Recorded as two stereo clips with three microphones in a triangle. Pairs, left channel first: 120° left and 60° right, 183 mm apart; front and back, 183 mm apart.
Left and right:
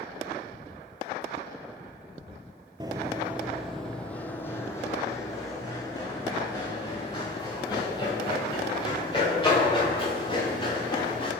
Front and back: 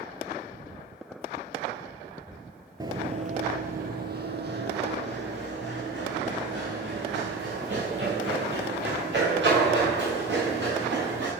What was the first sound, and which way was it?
Running footsteps, 115° right.